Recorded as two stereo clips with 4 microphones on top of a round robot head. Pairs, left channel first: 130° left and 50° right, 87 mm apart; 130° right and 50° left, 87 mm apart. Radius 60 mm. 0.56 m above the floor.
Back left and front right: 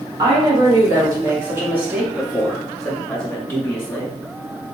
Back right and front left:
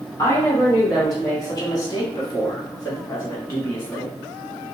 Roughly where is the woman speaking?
Right.